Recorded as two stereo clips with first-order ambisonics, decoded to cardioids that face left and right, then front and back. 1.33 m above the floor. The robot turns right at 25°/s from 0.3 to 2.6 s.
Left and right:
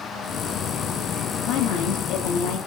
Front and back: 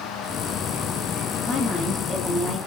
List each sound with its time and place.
1.5 s a woman speaking: 75° left, 0.6 m; by 2.6 s 100° left, 0.6 m